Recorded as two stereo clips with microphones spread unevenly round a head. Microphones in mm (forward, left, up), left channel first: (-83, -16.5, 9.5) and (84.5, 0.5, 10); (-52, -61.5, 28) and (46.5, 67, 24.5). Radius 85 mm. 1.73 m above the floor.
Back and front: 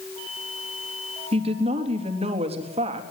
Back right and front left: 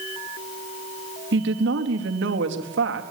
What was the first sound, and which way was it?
A woman speaking, 65° left.